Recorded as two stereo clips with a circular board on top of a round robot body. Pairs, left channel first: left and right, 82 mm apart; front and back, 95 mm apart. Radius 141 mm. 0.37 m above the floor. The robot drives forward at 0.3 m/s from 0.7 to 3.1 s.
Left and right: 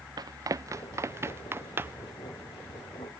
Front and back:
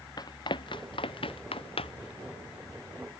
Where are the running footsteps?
50° right; by 2.1 s 25° right.